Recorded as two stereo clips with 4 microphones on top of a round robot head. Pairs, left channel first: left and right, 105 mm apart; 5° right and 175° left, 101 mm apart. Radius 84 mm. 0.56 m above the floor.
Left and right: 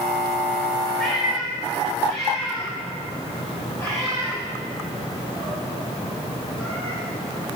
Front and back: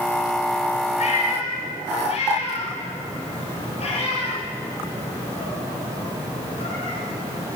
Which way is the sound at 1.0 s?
5° left.